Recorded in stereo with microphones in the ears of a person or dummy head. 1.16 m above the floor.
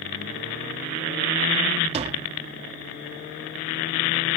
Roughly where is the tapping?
Right.